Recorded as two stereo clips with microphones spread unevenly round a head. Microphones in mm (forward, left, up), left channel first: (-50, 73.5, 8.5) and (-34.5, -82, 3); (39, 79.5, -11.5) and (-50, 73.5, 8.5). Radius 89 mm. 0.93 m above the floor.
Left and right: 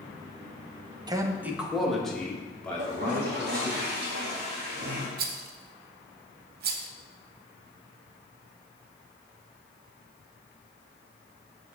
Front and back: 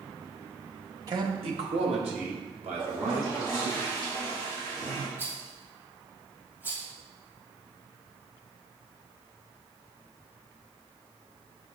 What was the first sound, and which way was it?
A man speaking, 125° right.